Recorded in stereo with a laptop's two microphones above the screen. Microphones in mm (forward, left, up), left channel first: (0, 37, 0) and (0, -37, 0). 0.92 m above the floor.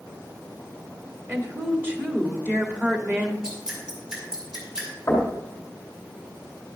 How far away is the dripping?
About 3 m.